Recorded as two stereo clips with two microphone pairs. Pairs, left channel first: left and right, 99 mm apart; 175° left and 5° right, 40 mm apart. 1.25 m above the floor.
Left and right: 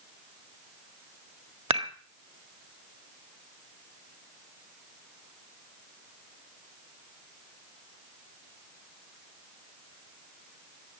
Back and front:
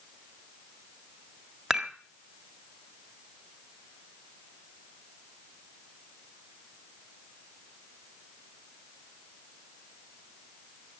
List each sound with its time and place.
1.7 s dishes clattering: 90° right, 1.8 m